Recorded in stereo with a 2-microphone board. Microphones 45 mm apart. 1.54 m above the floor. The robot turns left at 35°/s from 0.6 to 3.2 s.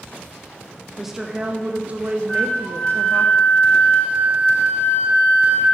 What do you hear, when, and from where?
1.0 s a woman speaking: 5° right, 0.5 m; by 3.3 s 80° right, 0.5 m
2.3 s a flute: 170° left, 1.2 m; by 5.7 s 135° left, 1.2 m